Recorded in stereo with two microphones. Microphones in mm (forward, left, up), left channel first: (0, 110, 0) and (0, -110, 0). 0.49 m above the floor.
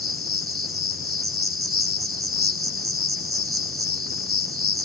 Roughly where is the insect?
Right.